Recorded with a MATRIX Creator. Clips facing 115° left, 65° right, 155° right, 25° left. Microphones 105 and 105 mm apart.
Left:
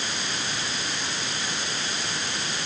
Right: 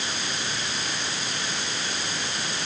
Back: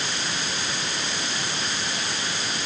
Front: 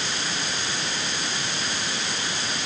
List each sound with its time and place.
Only background noise.